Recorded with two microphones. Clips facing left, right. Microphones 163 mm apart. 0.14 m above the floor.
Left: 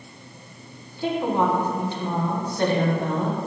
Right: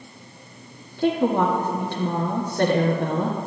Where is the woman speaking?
55° right (ahead or behind), 2 m.